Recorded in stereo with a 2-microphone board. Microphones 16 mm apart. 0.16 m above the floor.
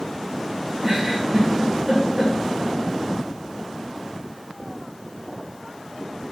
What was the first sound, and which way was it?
A giggle, 80° right.